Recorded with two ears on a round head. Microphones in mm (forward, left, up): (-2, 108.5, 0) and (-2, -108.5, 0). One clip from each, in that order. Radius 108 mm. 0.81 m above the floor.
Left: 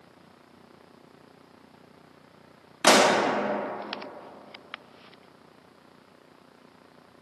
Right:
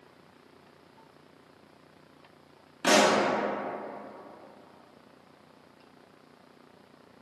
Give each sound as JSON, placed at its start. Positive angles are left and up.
{"t": 2.8, "sound": "a pop", "side_deg": 30, "distance_m": 0.6}